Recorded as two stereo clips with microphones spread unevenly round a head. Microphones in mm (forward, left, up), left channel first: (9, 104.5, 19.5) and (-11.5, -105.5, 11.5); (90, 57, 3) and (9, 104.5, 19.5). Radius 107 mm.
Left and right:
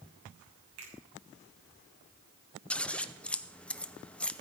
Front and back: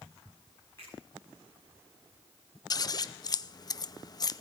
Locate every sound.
0.8 s a finger snap: 110° right, 6.5 m
2.7 s scissors: straight ahead, 0.6 m